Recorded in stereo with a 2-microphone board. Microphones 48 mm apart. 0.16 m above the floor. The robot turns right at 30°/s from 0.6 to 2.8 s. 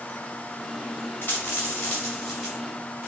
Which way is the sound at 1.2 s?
55° left (ahead or behind).